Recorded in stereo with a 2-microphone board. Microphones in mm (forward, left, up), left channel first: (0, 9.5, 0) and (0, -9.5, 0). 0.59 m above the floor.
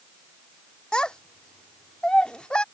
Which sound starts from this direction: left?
A child speaking, at 0.9 s.